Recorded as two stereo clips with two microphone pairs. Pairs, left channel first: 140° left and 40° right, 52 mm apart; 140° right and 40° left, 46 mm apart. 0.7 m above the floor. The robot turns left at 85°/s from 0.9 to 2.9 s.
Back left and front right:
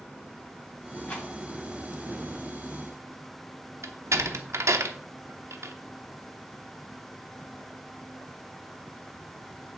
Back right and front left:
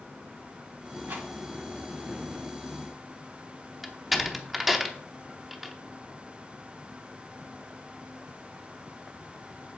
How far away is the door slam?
About 0.8 m.